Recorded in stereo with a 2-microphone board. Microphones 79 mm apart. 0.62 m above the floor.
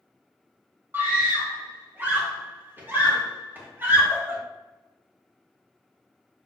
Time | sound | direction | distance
0.9 | a scream | 25° right (ahead or behind) | 0.8 m